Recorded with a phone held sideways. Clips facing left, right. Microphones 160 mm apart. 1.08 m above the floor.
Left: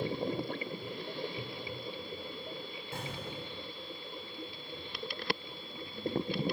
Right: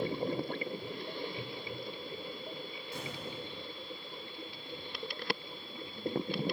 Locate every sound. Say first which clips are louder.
2.9 s an explosion: left 1 dB; 50° left (ahead or behind), 9.5 m